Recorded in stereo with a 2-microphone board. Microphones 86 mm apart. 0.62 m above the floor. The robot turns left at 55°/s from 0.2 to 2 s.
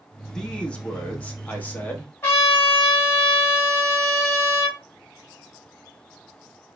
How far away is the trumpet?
About 2.5 m.